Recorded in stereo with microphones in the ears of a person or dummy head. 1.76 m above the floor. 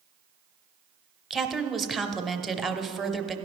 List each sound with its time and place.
1.3 s a woman speaking: centre (ahead or behind), 0.7 m